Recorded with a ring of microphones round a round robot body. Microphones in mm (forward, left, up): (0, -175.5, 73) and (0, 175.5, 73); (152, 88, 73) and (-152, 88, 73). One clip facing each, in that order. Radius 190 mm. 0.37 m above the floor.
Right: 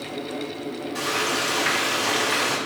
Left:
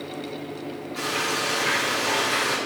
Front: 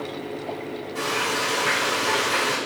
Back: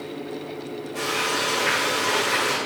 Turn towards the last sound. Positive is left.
turn(degrees=-95)